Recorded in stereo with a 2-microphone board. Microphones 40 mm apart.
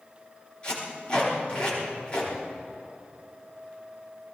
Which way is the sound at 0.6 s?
25° left (ahead or behind).